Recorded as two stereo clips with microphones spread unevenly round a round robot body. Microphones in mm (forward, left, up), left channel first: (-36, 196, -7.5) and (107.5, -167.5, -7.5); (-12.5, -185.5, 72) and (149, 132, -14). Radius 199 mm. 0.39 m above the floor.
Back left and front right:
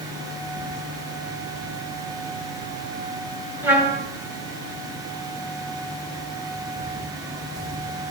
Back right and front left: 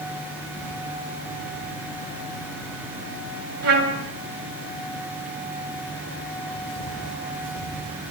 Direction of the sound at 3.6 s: 15° left.